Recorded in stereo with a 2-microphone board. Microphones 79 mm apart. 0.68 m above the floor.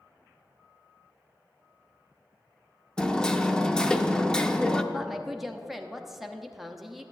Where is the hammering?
10° left (ahead or behind), 0.6 m.